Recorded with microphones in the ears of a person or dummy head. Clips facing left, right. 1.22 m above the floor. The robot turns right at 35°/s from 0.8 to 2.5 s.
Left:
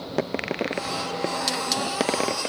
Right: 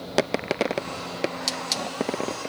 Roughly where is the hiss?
Centre.